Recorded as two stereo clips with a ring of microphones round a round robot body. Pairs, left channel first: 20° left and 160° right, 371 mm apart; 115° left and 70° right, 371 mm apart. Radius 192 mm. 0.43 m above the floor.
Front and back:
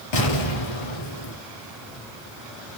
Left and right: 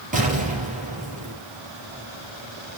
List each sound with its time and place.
0.1 s an explosion: 5° left, 4 m